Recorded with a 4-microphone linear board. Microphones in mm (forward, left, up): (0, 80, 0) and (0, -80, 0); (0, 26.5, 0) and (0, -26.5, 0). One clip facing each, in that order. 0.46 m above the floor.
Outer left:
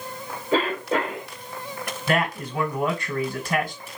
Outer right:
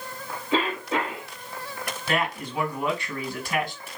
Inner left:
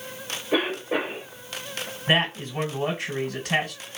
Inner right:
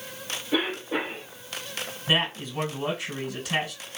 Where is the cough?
45° left (ahead or behind), 2 m.